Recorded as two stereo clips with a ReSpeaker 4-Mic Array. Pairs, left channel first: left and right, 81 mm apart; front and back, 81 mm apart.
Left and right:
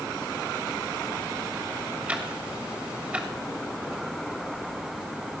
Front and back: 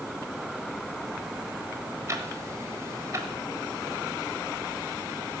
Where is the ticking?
155° right, 1.4 m.